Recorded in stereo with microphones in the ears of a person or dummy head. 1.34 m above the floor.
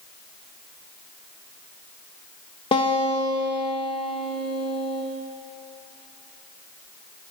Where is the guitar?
25° left (ahead or behind), 0.8 m.